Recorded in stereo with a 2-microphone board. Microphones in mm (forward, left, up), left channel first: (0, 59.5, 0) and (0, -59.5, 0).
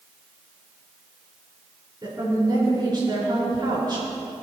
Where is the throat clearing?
I don't hear throat clearing.